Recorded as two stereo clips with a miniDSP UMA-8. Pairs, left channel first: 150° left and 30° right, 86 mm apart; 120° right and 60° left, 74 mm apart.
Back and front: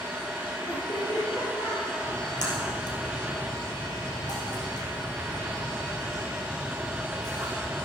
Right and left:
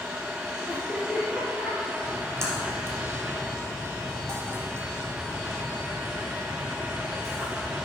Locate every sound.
0.7 s laughter: 140° left, 3 m
2.0 s a splash: 115° left, 2.5 m